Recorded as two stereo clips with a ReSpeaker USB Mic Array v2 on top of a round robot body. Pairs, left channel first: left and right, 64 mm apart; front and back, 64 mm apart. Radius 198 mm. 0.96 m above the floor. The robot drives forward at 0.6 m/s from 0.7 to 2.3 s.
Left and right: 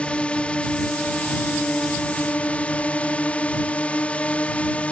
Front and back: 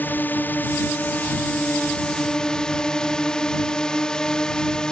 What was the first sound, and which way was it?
A drone, 35° left.